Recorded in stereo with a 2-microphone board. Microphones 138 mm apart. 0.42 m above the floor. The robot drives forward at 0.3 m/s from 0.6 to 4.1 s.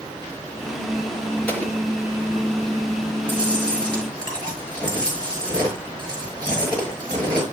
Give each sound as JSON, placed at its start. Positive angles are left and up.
{"t": 1.5, "sound": "an explosion", "side_deg": 10, "distance_m": 4.0}
{"t": 3.3, "sound": "chewing", "side_deg": 10, "distance_m": 6.5}